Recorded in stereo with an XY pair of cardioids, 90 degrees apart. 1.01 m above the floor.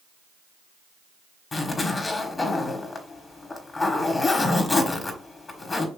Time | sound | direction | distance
1.5 | a zipper | 40° left | 1.3 m